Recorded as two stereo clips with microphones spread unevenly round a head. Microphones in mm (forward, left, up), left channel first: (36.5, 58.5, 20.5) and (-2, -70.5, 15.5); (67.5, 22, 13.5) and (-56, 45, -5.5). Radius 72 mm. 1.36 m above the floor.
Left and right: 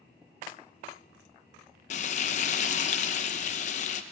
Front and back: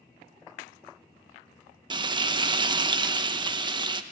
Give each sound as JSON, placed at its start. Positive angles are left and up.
{"t": 1.9, "sound": "frying", "azimuth_deg": 115, "distance_m": 0.8}